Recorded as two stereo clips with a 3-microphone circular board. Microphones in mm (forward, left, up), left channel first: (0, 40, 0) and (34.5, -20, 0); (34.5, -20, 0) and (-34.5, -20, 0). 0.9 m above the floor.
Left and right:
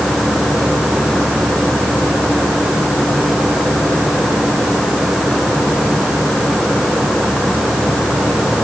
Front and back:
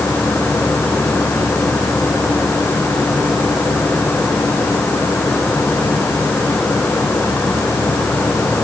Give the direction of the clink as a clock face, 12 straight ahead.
No clink in this recording.